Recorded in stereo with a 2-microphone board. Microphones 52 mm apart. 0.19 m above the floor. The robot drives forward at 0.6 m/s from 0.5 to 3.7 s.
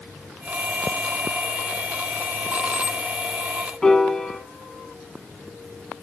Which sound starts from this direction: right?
Keys jangling, at 2.5 s.